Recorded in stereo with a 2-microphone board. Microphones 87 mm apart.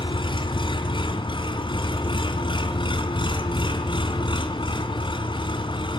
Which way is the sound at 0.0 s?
65° left (ahead or behind).